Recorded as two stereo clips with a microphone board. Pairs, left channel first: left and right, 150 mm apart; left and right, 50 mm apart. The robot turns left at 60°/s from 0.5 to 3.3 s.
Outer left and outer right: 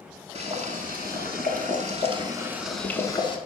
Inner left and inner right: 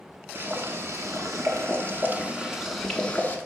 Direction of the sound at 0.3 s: 45° right.